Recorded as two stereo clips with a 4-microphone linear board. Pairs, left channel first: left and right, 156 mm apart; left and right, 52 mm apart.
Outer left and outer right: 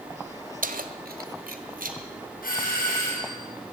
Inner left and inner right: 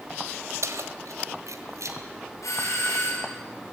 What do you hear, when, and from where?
0.6 s keys jangling: 65° right (ahead or behind), 1.3 m
2.4 s a doorbell: 75° left (ahead or behind), 6.5 m